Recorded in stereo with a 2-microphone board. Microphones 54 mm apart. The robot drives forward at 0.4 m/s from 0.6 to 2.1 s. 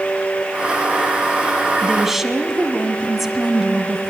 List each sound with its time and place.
1.8 s a woman speaking: 5° right (ahead or behind), 1.8 m